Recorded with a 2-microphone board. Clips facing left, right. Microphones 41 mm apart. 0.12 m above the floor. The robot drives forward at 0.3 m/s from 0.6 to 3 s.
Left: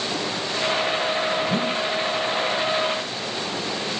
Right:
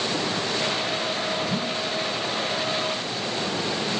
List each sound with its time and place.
1.5 s a whoosh: 50° left (ahead or behind)